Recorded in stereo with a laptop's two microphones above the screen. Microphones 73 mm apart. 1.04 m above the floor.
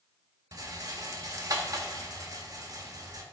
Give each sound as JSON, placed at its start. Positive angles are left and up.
{"t": 0.5, "sound": "a rattle", "side_deg": -50, "distance_m": 1.6}